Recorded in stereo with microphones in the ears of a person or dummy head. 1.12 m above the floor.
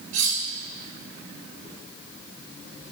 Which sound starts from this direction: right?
Cutlery clinking, at 0.1 s.